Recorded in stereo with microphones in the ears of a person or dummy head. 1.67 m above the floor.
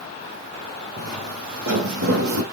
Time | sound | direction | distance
1.0 | footsteps | 75° right (ahead or behind) | 5.5 m